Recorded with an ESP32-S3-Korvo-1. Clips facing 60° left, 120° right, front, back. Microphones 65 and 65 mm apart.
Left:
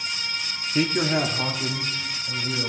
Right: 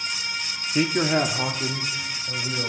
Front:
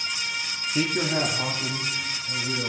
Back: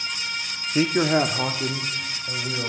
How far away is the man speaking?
About 0.6 m.